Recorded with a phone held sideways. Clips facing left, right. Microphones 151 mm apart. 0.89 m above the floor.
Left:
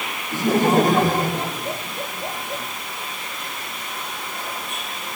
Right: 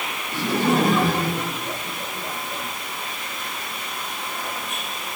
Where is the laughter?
50° left (ahead or behind), 4 m; by 2.6 s 45° left (ahead or behind), 5.5 m.